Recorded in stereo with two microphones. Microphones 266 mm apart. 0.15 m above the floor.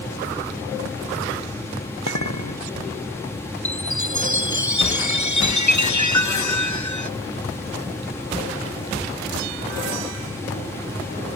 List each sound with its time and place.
2.1 s a clink: 75° left (ahead or behind)
3.6 s a chime: 85° left